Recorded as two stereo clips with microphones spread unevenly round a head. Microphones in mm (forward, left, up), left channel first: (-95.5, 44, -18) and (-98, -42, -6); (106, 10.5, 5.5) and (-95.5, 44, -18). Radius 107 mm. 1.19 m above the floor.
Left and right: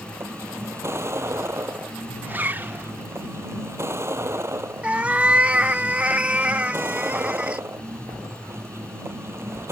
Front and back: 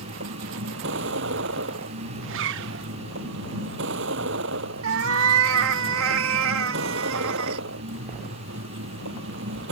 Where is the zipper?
165° right.